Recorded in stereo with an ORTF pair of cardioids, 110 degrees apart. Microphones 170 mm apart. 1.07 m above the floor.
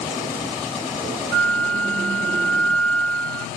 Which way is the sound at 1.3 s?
5° left.